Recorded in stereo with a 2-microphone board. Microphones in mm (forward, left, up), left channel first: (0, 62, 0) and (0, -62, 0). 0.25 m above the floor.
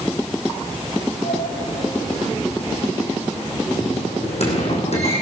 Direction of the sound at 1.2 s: 55° left (ahead or behind).